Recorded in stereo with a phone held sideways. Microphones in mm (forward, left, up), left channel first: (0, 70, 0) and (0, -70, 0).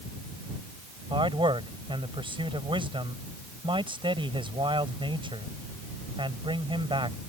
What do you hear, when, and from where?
1.1 s a man speaking: 35° right (ahead or behind)